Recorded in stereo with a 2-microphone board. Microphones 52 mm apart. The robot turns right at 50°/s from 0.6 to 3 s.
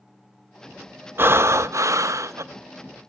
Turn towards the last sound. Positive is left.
turn(degrees=-40)